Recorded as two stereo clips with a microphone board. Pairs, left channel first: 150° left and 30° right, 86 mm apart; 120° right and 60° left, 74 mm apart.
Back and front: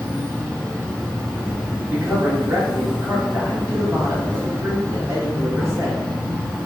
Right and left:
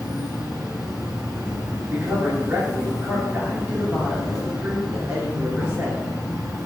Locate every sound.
0.0 s an insect: 45° left, 1.9 m
1.9 s a man speaking: 10° left, 1.9 m